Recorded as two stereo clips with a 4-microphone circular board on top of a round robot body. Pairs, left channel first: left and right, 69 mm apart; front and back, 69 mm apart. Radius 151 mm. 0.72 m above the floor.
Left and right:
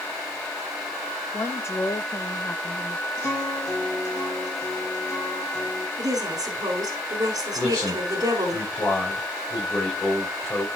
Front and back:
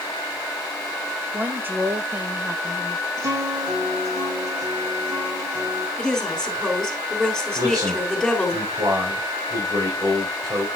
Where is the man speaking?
155° left, 5 m.